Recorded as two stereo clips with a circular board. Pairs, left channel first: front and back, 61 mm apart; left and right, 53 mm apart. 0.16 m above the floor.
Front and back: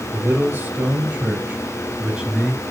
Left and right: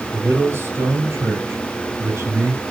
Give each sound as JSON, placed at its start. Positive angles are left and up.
{"t": 0.1, "sound": "a man speaking", "azimuth_deg": -130, "distance_m": 3.5}